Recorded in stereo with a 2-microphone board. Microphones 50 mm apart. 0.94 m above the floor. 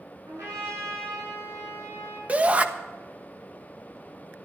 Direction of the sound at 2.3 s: 30° right (ahead or behind).